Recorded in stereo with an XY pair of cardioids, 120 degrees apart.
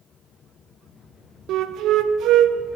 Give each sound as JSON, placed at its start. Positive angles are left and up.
{"t": 1.5, "sound": "a flute", "azimuth_deg": -65, "distance_m": 0.6}